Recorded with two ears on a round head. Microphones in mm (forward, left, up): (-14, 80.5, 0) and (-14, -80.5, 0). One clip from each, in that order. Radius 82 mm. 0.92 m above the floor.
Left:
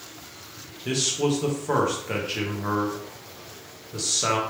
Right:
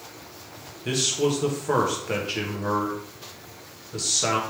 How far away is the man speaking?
About 0.8 m.